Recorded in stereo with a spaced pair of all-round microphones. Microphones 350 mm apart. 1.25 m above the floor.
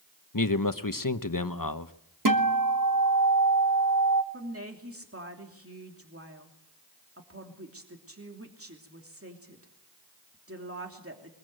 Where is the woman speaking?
40° right (ahead or behind), 3 m.